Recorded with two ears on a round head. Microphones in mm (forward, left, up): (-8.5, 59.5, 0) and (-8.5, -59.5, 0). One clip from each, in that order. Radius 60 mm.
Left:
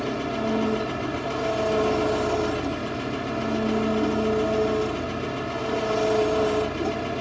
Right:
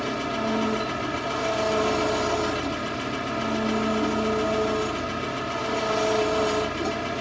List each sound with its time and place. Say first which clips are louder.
0.0 s an engine running: even; 40° right (ahead or behind)